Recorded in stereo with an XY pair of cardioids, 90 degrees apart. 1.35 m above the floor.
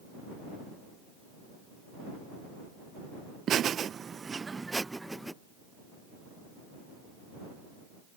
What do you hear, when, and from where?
3.5 s laughter: 70° right; by 5.3 s 5° right